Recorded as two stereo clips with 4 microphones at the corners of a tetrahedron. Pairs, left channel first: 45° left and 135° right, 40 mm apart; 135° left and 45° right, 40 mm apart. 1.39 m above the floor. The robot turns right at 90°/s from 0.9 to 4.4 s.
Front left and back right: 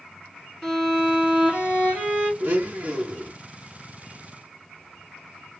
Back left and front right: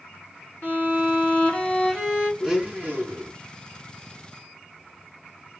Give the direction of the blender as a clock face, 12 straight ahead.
4 o'clock.